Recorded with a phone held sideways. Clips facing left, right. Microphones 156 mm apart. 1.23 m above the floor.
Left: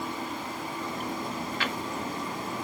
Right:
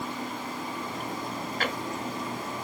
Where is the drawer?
45° right (ahead or behind), 1.0 m.